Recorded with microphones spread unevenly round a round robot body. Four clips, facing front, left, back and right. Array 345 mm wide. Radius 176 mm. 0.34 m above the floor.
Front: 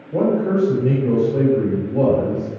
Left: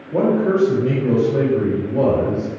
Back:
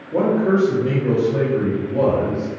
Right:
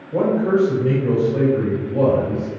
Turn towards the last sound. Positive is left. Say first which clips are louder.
# left 1 dB, back 1 dB
turn(degrees=110)